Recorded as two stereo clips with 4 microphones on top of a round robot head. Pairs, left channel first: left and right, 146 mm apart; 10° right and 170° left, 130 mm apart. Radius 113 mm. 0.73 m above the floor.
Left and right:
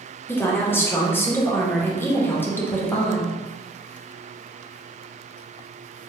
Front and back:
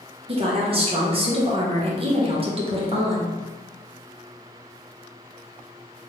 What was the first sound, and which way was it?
A woman speaking, 160° left.